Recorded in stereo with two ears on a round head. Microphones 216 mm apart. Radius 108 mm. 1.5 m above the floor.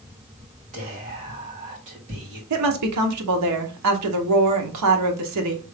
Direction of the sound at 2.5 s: 85° right.